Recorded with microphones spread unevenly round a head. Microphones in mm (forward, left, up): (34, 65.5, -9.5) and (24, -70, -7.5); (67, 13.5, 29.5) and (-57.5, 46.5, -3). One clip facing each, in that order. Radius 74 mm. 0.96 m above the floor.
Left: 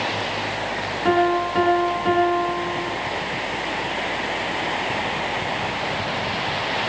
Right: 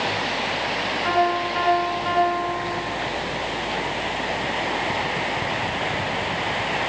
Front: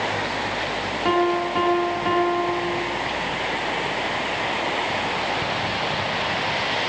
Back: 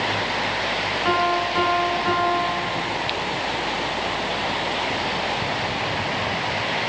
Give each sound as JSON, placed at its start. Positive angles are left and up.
{"t": 1.1, "sound": "a piano", "azimuth_deg": 45, "distance_m": 4.5}